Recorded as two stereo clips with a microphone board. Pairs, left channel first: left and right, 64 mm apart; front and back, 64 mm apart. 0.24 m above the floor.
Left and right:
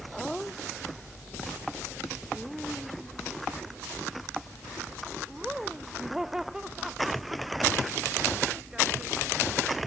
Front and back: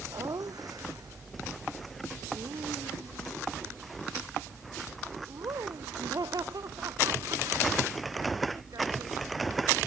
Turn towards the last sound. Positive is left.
turn(degrees=-170)